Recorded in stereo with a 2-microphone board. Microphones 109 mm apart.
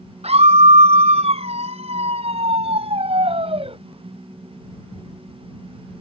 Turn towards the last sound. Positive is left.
turn(degrees=-60)  # may be behind; listen again after turning